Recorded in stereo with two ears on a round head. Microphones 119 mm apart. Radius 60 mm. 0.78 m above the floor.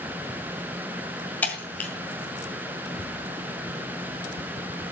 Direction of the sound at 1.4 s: 10° left (ahead or behind).